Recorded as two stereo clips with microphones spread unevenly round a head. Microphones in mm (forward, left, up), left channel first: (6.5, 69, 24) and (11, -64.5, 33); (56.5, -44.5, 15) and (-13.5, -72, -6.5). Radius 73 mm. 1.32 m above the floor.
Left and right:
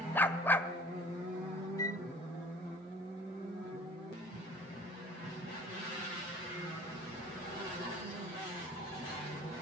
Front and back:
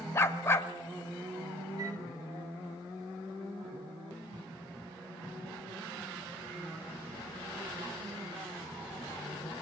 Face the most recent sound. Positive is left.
turn(degrees=155)